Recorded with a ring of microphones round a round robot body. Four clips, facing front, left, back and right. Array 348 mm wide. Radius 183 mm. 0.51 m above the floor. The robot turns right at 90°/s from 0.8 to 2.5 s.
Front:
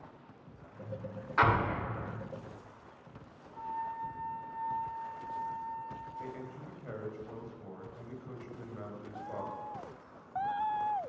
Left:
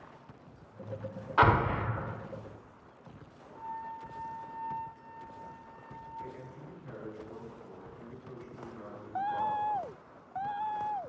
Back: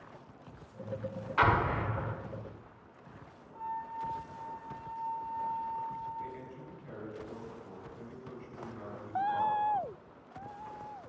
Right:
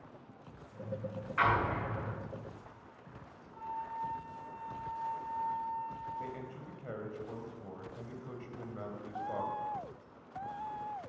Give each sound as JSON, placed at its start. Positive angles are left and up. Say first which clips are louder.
{"t": 1.4, "sound": "an explosion", "louder": "left 5 dB, back 1 dB", "azimuth_deg": 85, "distance_m": 1.4}
{"t": 3.5, "sound": "a flute", "louder": "right 1 dB, front 1 dB", "azimuth_deg": -75, "distance_m": 7.0}
{"t": 6.2, "sound": "a man speaking", "louder": "right 2 dB, even", "azimuth_deg": -65, "distance_m": 3.5}